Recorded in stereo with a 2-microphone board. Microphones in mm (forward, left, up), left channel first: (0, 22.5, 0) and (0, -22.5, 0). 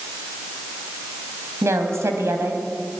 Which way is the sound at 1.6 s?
85° right.